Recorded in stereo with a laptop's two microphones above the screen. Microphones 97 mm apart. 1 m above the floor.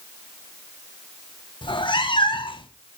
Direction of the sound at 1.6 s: 65° left (ahead or behind).